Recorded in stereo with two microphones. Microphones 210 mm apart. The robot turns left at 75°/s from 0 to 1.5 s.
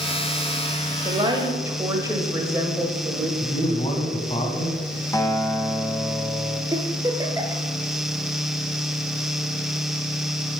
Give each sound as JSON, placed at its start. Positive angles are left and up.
{"t": 1.1, "sound": "a woman speaking", "azimuth_deg": -120, "distance_m": 1.5}
{"t": 3.4, "sound": "a man speaking", "side_deg": 25, "distance_m": 2.0}
{"t": 5.1, "sound": "a guitar", "side_deg": 15, "distance_m": 0.9}
{"t": 6.7, "sound": "a giggle", "side_deg": -15, "distance_m": 1.4}